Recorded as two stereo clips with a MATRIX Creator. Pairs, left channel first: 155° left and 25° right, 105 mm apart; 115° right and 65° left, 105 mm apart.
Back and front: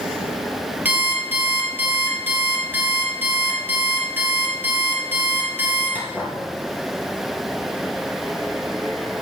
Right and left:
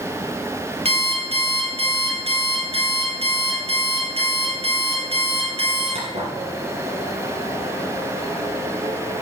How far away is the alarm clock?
About 3.5 m.